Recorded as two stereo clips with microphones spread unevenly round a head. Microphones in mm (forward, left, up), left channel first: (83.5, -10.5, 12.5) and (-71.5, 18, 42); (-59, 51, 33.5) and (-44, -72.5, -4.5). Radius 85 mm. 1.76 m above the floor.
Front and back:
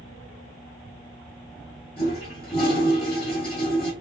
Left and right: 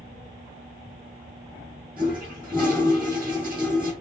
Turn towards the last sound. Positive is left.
turn(degrees=25)